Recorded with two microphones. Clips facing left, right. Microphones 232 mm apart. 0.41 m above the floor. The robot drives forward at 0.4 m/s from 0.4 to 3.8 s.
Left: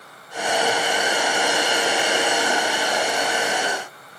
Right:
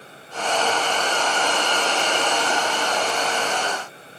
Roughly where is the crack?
No crack in this recording.